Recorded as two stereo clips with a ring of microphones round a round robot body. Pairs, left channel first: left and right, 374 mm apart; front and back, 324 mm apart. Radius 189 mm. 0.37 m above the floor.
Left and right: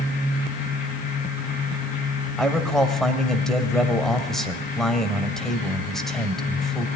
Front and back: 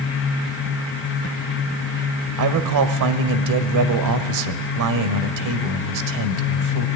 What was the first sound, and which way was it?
A man speaking, straight behind.